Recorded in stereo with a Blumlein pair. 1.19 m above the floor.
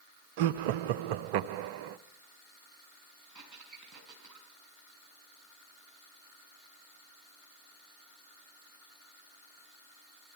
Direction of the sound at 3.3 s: 10° right.